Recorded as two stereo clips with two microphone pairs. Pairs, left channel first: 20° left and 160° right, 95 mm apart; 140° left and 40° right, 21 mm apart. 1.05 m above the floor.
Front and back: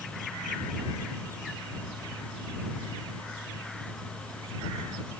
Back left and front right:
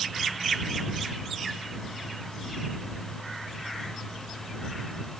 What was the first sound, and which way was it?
Only background noise.